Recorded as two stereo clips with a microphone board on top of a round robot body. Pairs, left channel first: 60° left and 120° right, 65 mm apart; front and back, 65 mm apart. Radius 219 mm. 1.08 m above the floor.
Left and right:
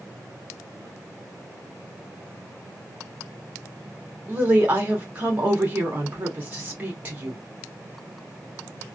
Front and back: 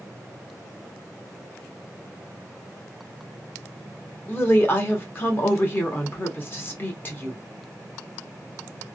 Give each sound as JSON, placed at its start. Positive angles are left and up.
{"t": 4.3, "sound": "a woman speaking", "azimuth_deg": -55, "distance_m": 1.1}